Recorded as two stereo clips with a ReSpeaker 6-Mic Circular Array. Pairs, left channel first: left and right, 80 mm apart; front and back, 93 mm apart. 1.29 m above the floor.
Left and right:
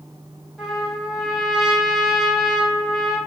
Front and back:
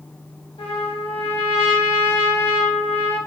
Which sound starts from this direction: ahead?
A trumpet, at 0.6 s.